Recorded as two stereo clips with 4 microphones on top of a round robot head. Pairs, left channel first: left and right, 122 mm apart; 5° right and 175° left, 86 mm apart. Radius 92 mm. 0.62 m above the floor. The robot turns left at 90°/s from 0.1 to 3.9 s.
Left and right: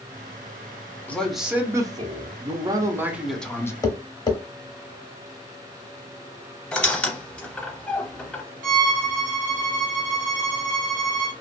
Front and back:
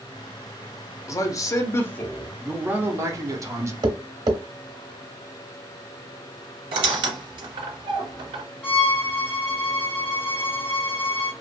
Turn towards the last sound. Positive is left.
turn(degrees=-85)